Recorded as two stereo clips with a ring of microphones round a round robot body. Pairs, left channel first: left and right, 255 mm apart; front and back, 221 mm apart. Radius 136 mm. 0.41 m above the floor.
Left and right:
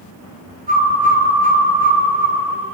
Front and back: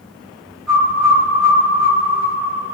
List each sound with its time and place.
0.7 s a bird: 150° right, 2.5 m